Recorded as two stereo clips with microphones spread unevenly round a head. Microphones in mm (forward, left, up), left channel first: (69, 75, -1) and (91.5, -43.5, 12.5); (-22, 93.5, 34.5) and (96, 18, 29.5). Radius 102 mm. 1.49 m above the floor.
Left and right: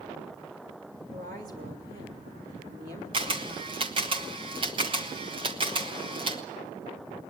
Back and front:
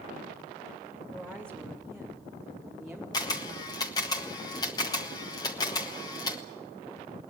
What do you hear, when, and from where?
1.1 s a woman speaking: 130° right, 3 m; by 3.0 s 125° right, 4 m
3.1 s a camera shutter: 140° right, 0.9 m